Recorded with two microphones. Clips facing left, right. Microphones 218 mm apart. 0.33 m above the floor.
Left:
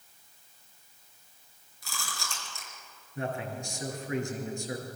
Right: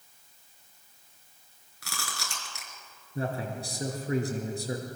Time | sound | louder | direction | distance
1.8 | chewing | right 1 dB | 75° right (ahead or behind) | 5 m
3.1 | a man speaking | right 2 dB | 35° right (ahead or behind) | 5 m